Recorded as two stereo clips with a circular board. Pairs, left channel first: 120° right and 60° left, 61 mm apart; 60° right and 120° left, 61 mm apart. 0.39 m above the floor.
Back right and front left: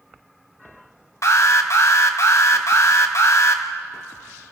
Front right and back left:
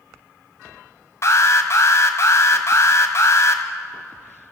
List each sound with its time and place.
1.2 s an alarm: 95° right, 1.8 m